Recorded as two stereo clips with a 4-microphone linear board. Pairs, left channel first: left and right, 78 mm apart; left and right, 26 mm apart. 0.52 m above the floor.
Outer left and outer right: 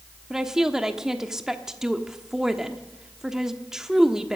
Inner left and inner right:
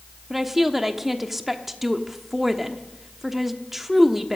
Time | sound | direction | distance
0.3 | a woman speaking | 10° right (ahead or behind) | 1.0 m